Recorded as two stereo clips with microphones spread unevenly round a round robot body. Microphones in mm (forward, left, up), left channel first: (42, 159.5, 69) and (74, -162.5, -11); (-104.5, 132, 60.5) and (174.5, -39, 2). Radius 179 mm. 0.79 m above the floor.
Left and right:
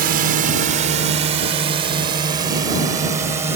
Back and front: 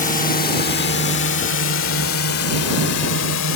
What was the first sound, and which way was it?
A drone, 140° right.